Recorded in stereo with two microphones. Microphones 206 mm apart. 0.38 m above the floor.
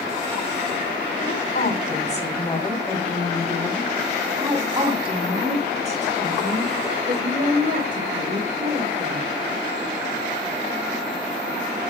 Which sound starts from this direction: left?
A woman speaking, at 1.2 s.